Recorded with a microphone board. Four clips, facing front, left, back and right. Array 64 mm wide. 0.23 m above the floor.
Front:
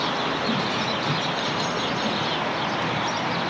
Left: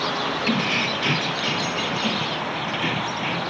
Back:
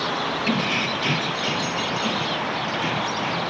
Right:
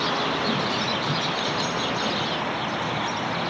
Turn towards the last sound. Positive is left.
turn(degrees=110)